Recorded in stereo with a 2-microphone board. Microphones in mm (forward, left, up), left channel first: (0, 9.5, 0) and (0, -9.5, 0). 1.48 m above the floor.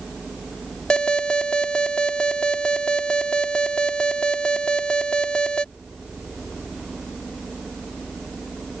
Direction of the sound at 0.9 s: 50° left (ahead or behind).